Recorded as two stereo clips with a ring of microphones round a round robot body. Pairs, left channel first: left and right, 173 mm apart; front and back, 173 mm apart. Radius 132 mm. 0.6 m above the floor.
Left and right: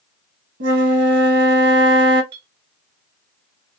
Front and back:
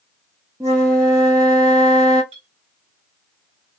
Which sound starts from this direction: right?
A flute, at 0.6 s.